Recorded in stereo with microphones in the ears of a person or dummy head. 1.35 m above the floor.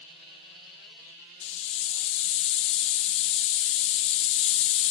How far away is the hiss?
About 0.6 m.